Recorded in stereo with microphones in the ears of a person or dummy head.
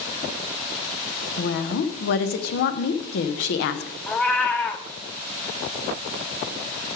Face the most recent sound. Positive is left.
turn(degrees=15)  # may be behind; listen again after turning